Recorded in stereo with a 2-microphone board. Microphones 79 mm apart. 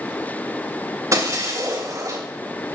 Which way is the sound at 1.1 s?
40° right (ahead or behind).